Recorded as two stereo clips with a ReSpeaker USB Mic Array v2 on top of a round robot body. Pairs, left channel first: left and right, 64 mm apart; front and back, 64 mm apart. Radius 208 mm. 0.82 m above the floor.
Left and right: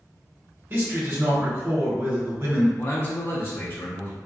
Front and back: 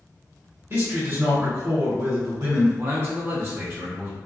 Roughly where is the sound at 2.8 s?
Behind left.